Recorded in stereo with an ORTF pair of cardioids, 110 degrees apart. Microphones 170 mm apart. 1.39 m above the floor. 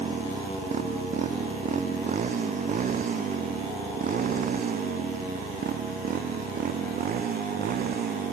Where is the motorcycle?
40° right; by 8.3 s 60° right.